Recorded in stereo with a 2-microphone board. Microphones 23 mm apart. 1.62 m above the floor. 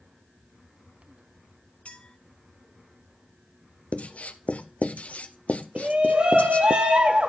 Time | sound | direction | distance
1.9 | a clink | 65° left (ahead or behind) | 2 m
3.9 | writing | 70° left (ahead or behind) | 1.0 m
5.8 | a shout | 55° right (ahead or behind) | 1.5 m